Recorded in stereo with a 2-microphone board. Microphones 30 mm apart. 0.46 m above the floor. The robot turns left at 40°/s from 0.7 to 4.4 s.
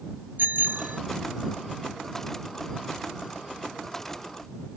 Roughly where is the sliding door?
I don't hear a sliding door.